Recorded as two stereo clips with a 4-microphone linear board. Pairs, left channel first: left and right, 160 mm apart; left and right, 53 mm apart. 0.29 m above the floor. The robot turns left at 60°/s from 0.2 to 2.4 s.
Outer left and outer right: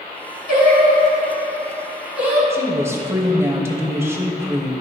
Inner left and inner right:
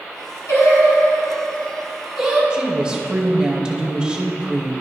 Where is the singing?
70° left (ahead or behind), 3 m; by 2.4 s 20° right (ahead or behind), 3 m.